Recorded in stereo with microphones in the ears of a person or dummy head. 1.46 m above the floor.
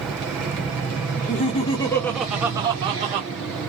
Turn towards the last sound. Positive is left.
turn(degrees=-40)  # may be behind; listen again after turning